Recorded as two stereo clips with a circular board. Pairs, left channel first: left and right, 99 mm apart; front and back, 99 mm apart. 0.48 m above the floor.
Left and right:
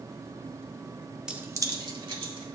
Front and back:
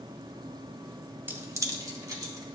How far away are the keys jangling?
About 0.6 m.